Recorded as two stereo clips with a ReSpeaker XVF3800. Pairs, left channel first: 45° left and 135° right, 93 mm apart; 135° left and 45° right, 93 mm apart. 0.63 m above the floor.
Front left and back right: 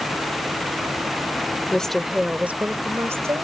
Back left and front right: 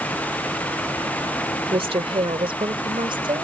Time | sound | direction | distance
1.7 | a woman speaking | 35° right | ?